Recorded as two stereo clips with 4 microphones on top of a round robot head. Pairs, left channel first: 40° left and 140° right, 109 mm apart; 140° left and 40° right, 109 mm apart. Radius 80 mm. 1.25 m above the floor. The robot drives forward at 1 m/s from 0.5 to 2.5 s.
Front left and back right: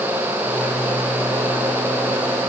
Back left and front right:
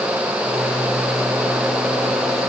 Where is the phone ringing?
No phone ringing in this recording.